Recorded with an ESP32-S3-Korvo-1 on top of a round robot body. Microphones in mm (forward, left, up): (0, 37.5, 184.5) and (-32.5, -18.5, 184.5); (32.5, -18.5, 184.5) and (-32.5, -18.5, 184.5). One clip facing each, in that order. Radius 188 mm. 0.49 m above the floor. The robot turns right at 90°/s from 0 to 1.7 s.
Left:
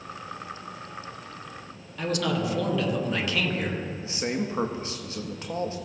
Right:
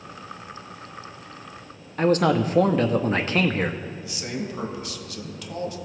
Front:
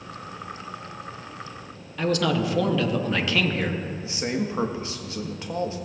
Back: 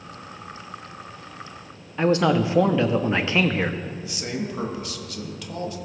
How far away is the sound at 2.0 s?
About 0.9 m.